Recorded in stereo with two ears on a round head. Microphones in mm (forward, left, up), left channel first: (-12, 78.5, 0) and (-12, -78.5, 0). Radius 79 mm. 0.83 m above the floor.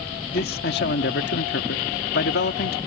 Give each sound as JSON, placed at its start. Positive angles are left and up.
{"t": 0.3, "sound": "a man speaking", "side_deg": 55}